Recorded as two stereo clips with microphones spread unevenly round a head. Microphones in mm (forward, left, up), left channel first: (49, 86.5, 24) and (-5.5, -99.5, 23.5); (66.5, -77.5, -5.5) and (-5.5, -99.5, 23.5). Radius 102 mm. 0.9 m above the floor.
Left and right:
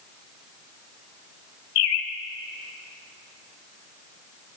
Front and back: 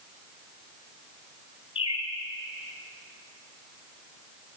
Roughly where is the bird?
Left.